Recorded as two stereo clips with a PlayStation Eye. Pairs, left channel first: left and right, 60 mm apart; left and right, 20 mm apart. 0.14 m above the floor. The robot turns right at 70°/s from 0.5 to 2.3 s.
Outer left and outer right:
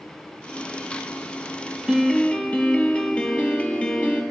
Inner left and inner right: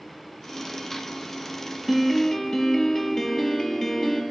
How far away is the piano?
About 1.6 m.